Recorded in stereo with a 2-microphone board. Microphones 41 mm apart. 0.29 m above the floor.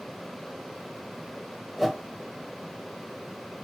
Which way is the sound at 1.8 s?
5° right (ahead or behind).